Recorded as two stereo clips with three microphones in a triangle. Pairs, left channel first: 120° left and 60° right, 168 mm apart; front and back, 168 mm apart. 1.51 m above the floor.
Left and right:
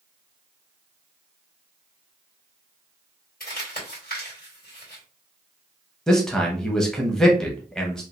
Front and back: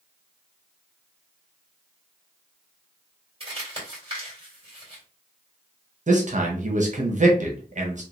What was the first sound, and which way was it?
Crumpling, 125° left.